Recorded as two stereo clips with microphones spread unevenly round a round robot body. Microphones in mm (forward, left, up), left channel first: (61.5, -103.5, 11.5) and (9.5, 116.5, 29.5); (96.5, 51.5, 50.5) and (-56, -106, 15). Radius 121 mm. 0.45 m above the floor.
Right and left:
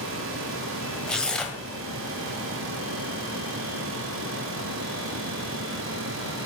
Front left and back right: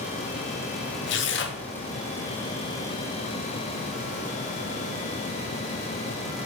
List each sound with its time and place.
1.1 s tearing paper: 10° left, 1.6 m